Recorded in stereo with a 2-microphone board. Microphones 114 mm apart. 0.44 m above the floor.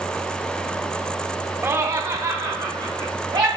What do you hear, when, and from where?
1.6 s laughter: 20° right (ahead or behind), 0.7 m; by 3.5 s 35° right (ahead or behind), 2.5 m